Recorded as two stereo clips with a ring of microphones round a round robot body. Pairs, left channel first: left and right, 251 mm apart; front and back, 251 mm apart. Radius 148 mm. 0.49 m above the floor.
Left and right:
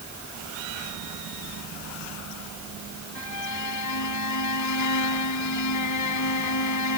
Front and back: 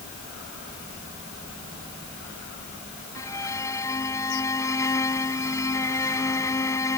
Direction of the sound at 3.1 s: 80° left.